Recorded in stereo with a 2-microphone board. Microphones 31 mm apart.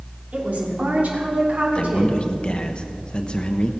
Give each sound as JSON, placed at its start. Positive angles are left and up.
{"t": 0.3, "sound": "a woman speaking", "side_deg": -60, "distance_m": 3.0}
{"t": 1.8, "sound": "a man speaking", "side_deg": 35, "distance_m": 0.9}